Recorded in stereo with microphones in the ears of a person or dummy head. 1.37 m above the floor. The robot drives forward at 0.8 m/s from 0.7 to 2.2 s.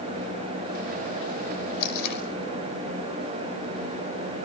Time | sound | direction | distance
1.8 | tape being pulled | 55° left (ahead or behind) | 5 m